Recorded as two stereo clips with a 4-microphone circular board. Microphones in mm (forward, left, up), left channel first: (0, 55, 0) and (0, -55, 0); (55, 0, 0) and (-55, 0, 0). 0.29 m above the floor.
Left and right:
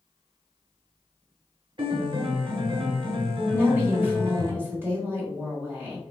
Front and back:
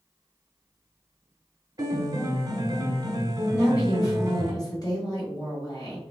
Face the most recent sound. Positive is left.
turn(degrees=-30)